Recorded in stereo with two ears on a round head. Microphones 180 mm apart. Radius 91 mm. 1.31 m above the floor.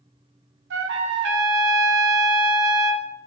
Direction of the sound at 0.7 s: 60° right (ahead or behind).